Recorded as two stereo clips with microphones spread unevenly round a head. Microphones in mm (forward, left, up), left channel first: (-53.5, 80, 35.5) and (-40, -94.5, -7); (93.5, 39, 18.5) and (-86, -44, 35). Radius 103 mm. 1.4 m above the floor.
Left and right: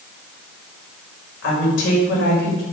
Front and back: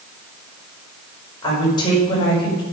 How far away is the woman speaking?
About 5 m.